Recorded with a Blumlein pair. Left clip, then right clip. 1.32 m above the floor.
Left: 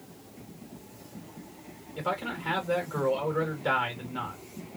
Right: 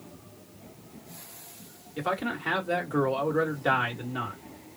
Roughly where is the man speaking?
Ahead.